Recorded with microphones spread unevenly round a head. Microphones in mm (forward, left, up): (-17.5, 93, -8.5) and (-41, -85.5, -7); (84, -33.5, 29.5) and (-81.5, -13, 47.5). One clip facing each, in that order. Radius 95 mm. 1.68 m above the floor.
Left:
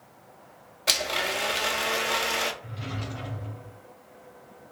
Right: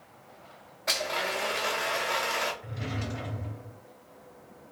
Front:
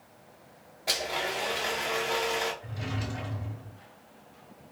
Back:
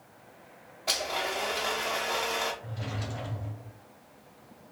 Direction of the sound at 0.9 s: 80° left.